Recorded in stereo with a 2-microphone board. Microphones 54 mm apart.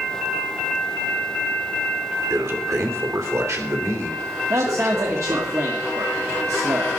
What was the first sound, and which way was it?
A man speaking, 60° right (ahead or behind).